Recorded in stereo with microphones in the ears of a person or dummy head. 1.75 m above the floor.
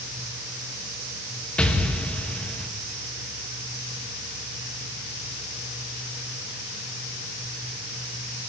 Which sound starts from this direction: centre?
An explosion, at 1.6 s.